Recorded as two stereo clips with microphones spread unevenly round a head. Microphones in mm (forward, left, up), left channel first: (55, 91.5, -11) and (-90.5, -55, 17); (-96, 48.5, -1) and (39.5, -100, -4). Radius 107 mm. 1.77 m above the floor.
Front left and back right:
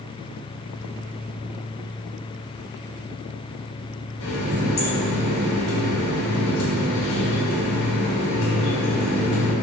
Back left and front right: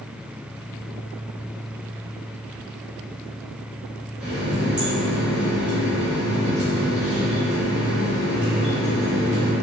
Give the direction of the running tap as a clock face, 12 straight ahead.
11 o'clock.